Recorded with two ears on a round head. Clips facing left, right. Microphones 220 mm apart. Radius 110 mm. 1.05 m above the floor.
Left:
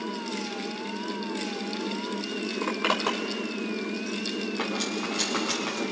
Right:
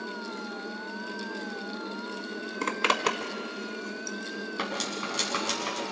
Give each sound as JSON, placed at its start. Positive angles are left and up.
{"t": 2.6, "sound": "a zipper", "side_deg": -35, "distance_m": 1.5}
{"t": 4.6, "sound": "cutlery clinking", "side_deg": -25, "distance_m": 6.0}